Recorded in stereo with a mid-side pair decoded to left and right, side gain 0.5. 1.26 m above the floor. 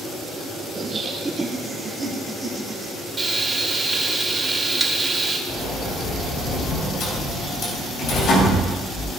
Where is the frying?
20° right, 1.8 m.